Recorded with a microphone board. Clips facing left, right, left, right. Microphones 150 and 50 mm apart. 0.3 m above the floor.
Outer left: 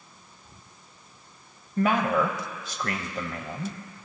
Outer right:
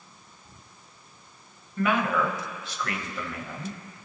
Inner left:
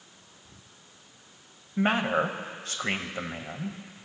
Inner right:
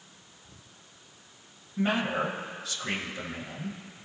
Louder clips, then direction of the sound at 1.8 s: Outer left 2 dB, inner left 3 dB; 40° left (ahead or behind).